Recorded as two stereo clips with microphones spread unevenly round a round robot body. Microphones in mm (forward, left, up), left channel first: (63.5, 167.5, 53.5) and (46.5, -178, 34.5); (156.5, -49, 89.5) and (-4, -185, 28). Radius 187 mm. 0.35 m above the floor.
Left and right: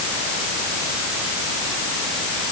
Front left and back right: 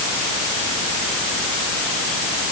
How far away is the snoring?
I don't hear snoring.